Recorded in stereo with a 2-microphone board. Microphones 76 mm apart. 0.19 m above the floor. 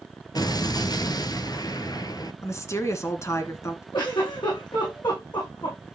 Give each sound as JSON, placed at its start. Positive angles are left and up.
{"t": 0.3, "sound": "an explosion", "side_deg": 60, "distance_m": 1.1}
{"t": 2.4, "sound": "a woman speaking", "side_deg": 40, "distance_m": 1.9}
{"t": 3.9, "sound": "a giggle", "side_deg": 75, "distance_m": 9.0}